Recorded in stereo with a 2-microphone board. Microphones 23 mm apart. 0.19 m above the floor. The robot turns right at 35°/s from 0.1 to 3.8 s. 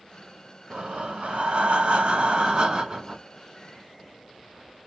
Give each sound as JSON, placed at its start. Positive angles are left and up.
{"t": 0.7, "sound": "breathing", "azimuth_deg": -120, "distance_m": 0.6}